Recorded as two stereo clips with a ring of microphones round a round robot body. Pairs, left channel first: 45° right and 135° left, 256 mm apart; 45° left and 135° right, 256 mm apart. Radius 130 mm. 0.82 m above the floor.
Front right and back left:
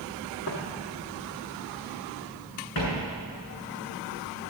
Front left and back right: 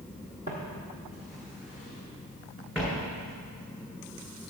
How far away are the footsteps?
About 2 m.